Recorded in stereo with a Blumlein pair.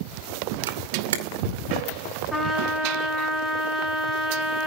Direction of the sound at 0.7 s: 60° right.